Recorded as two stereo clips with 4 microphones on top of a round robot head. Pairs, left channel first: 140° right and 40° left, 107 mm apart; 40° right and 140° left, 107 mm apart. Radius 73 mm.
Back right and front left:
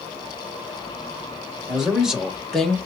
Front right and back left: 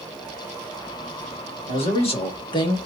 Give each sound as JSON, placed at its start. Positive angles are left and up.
{"t": 1.7, "sound": "a man speaking", "azimuth_deg": -40, "distance_m": 2.5}